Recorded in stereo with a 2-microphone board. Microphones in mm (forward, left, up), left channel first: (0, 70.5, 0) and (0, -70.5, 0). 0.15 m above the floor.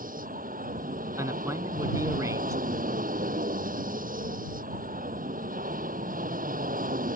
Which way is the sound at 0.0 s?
75° right (ahead or behind).